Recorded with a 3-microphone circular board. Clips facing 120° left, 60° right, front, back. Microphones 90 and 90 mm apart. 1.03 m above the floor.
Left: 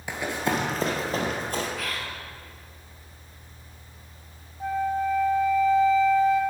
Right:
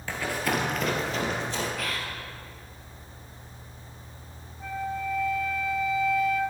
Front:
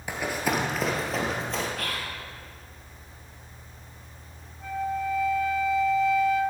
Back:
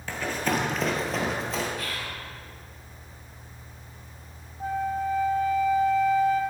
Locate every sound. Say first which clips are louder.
0.1 s running footsteps: left 1 dB, even; 60° left, 1.1 m; by 1.7 s 95° left, 1.6 m
1.8 s whispering: even, front 1 dB; 30° left, 0.5 m
4.6 s a flute: left 6 dB, back 2 dB; 165° left, 0.5 m